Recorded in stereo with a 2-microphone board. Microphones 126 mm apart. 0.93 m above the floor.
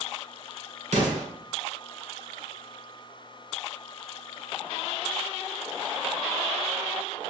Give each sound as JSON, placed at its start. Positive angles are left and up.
{"t": 0.9, "sound": "an explosion", "side_deg": -65, "distance_m": 1.7}